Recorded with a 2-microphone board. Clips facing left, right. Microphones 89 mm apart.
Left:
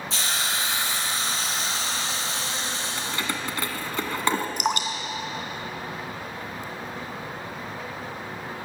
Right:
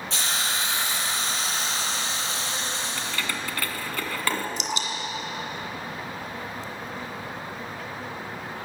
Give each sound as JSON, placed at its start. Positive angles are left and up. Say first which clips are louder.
{"t": 0.1, "sound": "a hiss", "louder": "even", "side_deg": 0, "distance_m": 8.5}
{"t": 3.0, "sound": "keys jangling", "louder": "left 1 dB", "side_deg": 20, "distance_m": 1.6}
{"t": 4.6, "sound": "dripping", "louder": "left 4 dB", "side_deg": 55, "distance_m": 2.5}